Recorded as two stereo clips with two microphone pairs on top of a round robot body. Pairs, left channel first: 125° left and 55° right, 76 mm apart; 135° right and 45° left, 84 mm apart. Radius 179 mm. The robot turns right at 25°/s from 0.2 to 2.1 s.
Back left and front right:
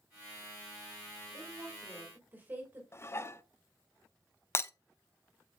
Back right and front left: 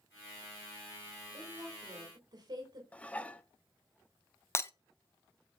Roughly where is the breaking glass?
Behind.